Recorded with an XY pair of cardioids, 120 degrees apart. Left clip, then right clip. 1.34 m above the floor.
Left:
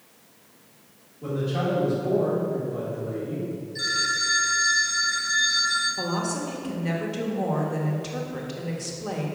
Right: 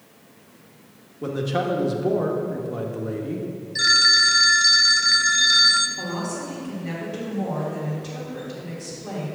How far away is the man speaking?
About 1.5 m.